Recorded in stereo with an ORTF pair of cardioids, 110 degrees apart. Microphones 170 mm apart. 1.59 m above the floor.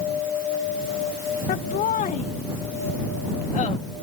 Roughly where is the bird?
I don't hear a bird.